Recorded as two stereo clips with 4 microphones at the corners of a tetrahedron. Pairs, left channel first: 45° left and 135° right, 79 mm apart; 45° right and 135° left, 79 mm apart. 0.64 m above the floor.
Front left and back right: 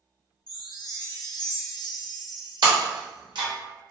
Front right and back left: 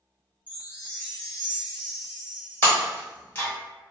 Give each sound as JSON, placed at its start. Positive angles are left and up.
{"t": 0.5, "sound": "a chime", "azimuth_deg": 70, "distance_m": 0.6}
{"t": 2.6, "sound": "breaking glass", "azimuth_deg": -110, "distance_m": 0.9}